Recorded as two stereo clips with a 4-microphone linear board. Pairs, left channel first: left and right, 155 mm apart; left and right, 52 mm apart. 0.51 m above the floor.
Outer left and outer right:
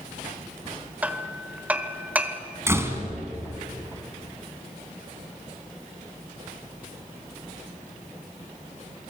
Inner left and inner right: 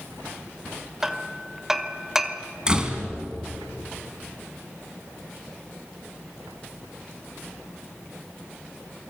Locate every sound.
1.0 s hammering: 10° right (ahead or behind), 1.5 m
2.7 s a door slam: 20° right (ahead or behind), 2.5 m